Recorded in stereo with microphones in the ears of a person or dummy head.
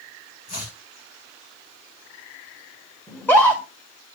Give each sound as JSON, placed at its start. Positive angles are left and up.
{"t": 0.5, "sound": "chopping", "side_deg": 40, "distance_m": 1.7}
{"t": 3.1, "sound": "a scream", "side_deg": 5, "distance_m": 1.7}